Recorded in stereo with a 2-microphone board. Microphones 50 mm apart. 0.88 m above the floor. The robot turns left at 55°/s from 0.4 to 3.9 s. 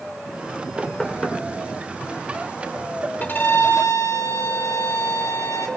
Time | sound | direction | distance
0.8 | knocking | 5° right (ahead or behind) | 1.7 m
3.2 | a violin | 145° left | 1.1 m